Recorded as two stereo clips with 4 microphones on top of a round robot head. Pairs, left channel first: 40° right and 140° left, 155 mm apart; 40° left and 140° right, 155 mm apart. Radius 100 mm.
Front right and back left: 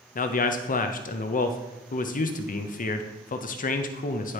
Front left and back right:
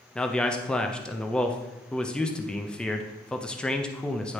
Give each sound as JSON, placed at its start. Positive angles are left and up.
{"t": 0.1, "sound": "a man speaking", "azimuth_deg": -40, "distance_m": 0.6}